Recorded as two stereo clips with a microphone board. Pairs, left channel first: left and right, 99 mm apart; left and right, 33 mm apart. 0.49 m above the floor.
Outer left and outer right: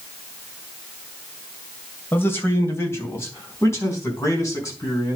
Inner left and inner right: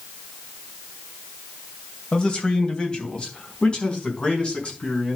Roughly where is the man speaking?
Left.